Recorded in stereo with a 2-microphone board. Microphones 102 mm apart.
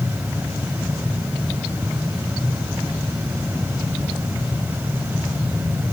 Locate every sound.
Only background noise.